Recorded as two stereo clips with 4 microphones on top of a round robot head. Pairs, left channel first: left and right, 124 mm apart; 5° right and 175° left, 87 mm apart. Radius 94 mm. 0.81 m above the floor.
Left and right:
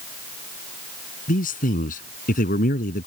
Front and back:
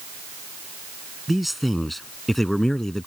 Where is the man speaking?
85° left; by 3.1 s 80° left.